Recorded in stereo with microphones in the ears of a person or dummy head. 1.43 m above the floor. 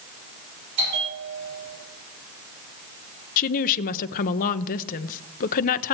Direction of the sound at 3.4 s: 40° left (ahead or behind).